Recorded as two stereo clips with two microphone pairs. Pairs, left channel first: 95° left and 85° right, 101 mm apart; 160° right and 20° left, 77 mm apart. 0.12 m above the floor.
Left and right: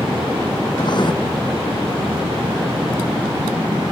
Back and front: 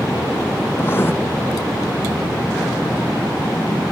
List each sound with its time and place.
0.8 s writing: 135° left